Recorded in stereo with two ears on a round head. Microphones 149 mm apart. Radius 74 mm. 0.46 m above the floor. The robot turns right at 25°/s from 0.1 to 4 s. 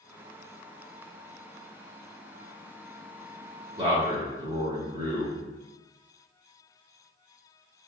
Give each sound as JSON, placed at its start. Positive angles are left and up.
{"t": 3.8, "sound": "a man speaking", "side_deg": -30, "distance_m": 1.4}